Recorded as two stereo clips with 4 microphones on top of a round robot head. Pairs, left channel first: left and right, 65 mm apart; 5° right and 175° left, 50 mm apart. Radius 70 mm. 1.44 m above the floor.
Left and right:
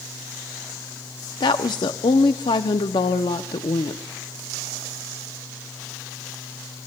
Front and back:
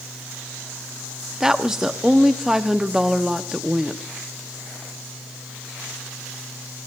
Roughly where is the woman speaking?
Left.